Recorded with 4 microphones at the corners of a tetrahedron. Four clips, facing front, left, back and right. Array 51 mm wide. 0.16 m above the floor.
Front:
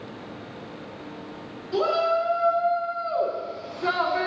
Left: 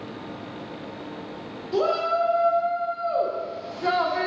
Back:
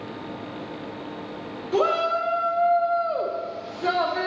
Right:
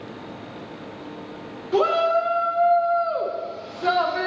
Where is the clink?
No clink in this recording.